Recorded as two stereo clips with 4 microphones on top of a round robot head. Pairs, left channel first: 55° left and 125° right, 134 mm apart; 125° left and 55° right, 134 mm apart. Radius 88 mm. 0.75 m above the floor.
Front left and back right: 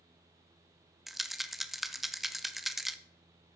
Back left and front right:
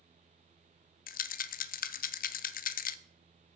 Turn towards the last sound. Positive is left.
turn(degrees=150)